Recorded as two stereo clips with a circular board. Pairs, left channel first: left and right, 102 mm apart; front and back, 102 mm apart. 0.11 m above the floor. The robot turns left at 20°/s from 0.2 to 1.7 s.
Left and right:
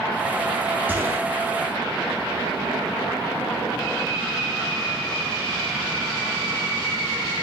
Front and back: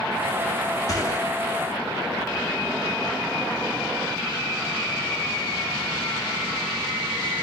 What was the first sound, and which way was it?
A gunshot, 30° right.